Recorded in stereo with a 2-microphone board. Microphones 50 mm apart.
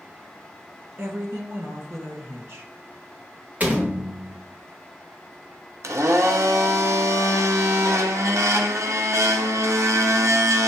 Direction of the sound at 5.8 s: 75° right (ahead or behind).